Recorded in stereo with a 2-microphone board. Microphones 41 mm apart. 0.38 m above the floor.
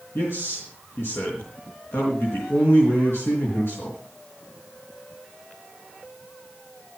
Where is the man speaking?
65° left (ahead or behind), 4 m.